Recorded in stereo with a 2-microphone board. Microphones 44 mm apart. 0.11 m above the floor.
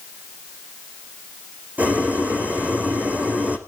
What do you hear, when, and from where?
1.8 s boiling: 35° right (ahead or behind), 3.5 m